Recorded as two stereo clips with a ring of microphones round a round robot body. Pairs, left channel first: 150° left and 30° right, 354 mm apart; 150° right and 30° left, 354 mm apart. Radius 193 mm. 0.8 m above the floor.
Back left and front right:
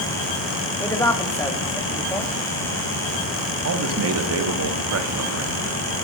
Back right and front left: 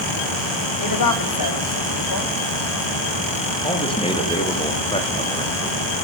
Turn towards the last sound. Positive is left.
turn(degrees=-75)